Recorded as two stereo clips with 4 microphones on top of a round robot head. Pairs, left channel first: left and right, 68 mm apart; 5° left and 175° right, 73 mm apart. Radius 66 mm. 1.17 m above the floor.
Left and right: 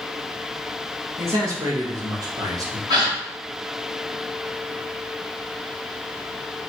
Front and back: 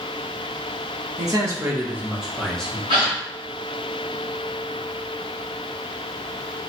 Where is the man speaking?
140° right, 1.0 m; by 2.8 s 65° right, 0.9 m.